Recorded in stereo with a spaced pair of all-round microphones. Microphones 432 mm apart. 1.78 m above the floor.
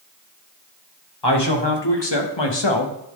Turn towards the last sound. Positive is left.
turn(degrees=75)  # may be behind; listen again after turning